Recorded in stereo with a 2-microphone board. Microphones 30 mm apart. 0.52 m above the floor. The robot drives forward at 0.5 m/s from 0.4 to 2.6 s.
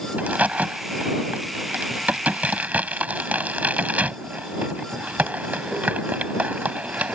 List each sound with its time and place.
0.2 s a crack: 75° right (ahead or behind); by 7.2 s 70° right (ahead or behind)